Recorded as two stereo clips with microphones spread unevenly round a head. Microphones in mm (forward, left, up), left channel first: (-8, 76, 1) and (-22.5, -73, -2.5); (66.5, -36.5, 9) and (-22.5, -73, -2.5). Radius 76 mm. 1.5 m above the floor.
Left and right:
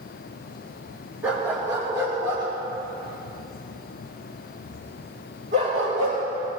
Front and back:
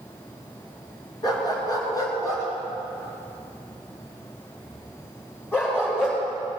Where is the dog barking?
15° right, 4 m; by 6.2 s 45° right, 9.5 m.